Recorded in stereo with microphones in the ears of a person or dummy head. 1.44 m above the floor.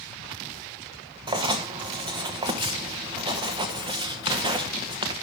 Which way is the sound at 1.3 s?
20° right (ahead or behind).